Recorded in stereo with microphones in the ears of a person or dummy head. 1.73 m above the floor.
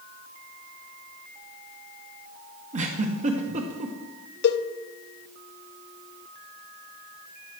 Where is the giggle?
35° right (ahead or behind), 1.2 m.